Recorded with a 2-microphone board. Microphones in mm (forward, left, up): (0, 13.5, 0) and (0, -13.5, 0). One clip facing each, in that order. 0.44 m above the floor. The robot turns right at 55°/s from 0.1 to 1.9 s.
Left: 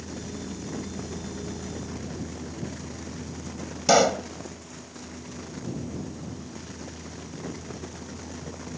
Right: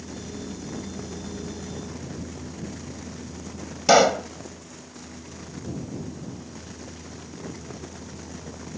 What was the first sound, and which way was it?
A pop, 15° right (ahead or behind).